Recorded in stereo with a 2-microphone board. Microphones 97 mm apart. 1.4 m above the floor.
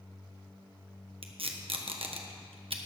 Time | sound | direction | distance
1.2 | tape being pulled | 70° right (ahead or behind) | 1.2 m